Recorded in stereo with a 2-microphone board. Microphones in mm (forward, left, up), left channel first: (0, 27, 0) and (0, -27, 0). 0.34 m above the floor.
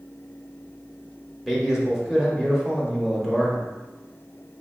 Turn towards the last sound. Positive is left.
turn(degrees=-5)  # may be behind; listen again after turning